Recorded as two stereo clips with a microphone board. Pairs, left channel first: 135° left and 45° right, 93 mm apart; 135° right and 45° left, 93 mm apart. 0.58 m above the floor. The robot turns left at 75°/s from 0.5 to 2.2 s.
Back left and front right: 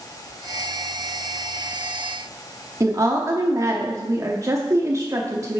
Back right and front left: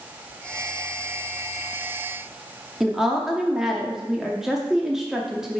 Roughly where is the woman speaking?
Ahead right.